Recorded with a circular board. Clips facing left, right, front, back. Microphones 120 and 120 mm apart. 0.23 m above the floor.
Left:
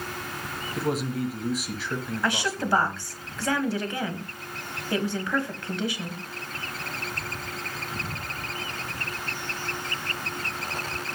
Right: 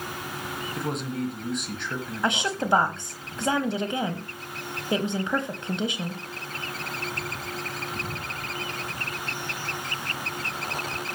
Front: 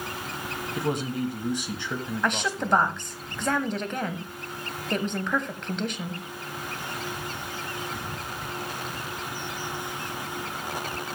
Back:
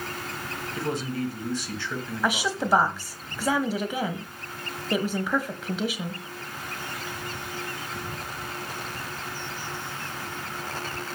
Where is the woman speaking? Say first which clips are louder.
Right 2 dB, back 2 dB; 110° right, 1.1 m.